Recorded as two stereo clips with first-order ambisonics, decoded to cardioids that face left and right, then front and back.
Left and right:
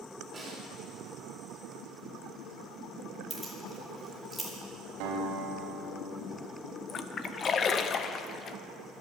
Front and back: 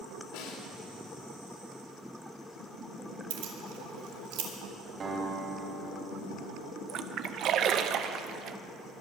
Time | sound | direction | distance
0.3 | a snare drum | 15° right | 3 m
3.3 | keys jangling | 170° right | 2.5 m
5.0 | a guitar | 120° right | 3 m
6.9 | a splash | 150° left | 0.6 m